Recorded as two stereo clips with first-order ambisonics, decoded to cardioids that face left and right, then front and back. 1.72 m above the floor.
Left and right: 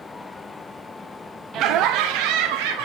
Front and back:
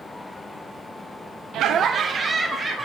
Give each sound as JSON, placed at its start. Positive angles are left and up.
{"t": 1.5, "sound": "laughter", "azimuth_deg": -135, "distance_m": 0.7}